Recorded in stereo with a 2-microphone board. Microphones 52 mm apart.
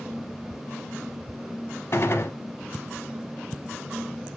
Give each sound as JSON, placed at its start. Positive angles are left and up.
{"t": 1.9, "sound": "a gunshot", "side_deg": 55, "distance_m": 0.7}